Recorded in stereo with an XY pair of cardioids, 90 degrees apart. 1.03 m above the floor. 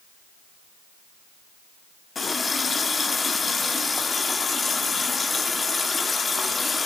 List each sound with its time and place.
2.1 s a running tap: 35° left, 1.7 m